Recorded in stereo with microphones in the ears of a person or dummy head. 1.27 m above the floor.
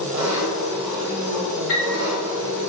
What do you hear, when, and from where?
0.0 s an engine running: 35° right (ahead or behind), 1.8 m
1.7 s a piano: 10° left (ahead or behind), 1.2 m